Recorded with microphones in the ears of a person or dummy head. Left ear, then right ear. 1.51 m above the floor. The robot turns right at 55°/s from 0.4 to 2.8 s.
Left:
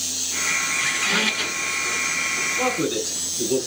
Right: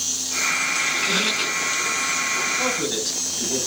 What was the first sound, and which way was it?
A squeak, 125° left.